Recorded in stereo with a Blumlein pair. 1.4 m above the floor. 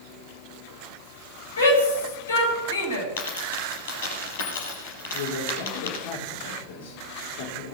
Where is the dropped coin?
60° left, 5 m.